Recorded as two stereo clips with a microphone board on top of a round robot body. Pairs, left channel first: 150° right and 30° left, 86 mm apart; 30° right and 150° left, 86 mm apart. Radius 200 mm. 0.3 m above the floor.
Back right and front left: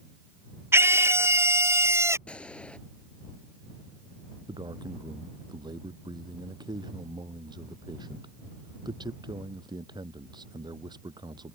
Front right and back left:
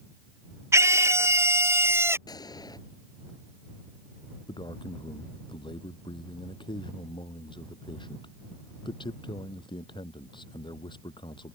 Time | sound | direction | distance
0.7 | a scream | 90° left | ?
2.3 | a gunshot | 70° right | ?
4.5 | a man speaking | 5° right | ?